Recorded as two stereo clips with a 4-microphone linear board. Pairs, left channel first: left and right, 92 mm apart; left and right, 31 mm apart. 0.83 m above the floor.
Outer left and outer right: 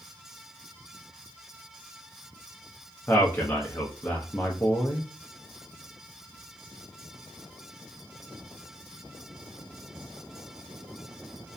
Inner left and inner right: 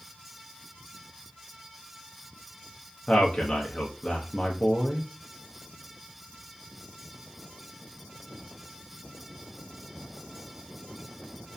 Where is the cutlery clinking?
I don't hear cutlery clinking.